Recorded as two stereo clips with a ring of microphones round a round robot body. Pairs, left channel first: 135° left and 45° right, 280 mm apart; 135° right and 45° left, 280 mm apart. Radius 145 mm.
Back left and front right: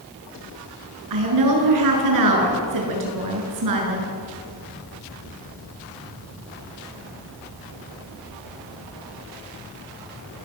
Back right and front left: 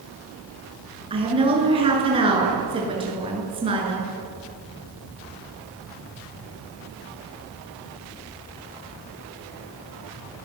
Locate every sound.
1.1 s a woman speaking: 25° right, 7.5 m